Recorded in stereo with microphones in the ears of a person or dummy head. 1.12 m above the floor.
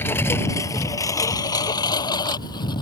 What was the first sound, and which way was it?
A lawn mower, 10° left (ahead or behind).